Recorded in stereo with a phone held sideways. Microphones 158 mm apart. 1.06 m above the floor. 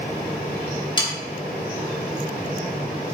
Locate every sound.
1.0 s sawing: 30° left (ahead or behind), 3 m